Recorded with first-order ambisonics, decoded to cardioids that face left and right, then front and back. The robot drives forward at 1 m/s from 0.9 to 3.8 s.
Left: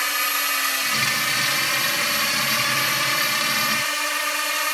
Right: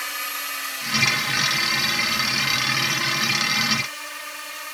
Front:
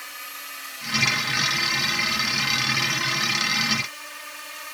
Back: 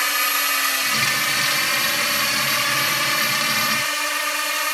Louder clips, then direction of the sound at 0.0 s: Left 6 dB, back 17 dB; 155° left.